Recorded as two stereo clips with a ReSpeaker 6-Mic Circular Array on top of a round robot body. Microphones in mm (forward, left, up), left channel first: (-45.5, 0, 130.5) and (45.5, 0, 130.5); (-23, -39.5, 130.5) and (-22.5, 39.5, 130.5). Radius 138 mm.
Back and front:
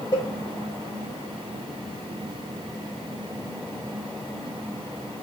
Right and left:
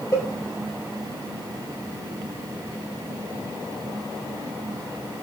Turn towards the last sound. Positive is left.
turn(degrees=-135)